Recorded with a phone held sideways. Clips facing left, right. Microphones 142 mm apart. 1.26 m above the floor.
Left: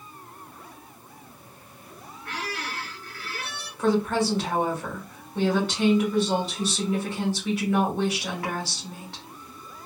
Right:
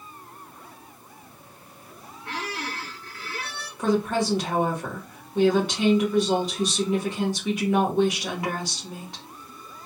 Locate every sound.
2.2 s a squeak: 25° right (ahead or behind), 1.5 m
3.8 s a woman speaking: 15° right (ahead or behind), 2 m